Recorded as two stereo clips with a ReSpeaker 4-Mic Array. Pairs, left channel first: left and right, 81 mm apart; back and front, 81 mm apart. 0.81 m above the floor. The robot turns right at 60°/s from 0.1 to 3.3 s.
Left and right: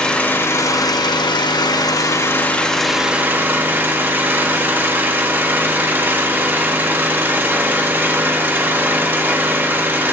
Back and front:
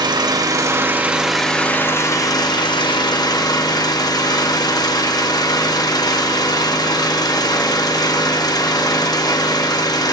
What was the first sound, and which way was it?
An engine running, 15° left.